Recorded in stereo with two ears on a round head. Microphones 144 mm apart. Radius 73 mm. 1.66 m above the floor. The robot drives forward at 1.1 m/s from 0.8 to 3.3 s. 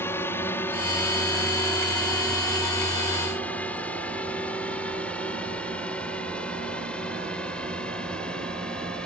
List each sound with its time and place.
0.0 s a drone: 15° left (ahead or behind); by 9.1 s 5° left (ahead or behind)